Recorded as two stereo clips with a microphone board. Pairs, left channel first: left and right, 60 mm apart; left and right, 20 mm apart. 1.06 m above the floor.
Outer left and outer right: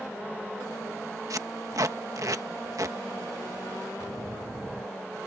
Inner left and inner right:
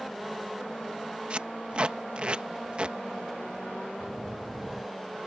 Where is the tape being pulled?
65° right (ahead or behind).